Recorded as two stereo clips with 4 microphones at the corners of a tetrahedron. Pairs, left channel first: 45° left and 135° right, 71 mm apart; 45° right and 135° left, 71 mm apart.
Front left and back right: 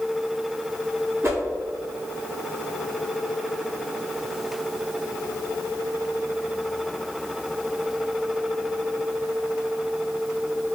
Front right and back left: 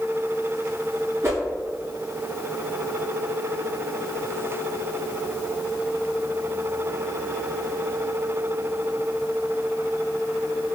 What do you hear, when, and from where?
1.2 s a whoosh: 175° right, 1.8 m